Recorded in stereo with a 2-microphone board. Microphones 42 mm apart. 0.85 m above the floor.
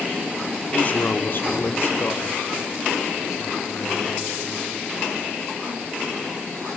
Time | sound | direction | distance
0.7 | a man speaking | 30° left (ahead or behind) | 1.8 m